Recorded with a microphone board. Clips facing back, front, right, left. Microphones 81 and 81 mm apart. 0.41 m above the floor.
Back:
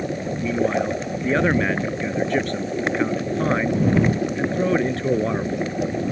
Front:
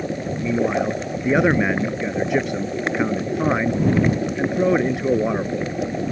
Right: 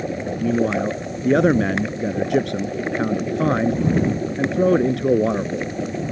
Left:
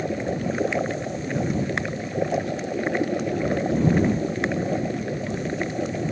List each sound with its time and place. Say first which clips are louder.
0.4 s a man speaking: front 1 dB, right 7 dB; 80° right